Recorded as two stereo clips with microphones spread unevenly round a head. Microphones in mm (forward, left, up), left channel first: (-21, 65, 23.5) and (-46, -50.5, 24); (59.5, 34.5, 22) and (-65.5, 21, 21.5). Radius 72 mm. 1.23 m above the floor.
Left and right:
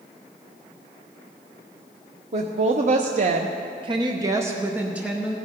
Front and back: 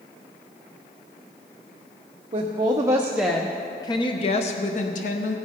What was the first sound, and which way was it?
A woman speaking, 125° right.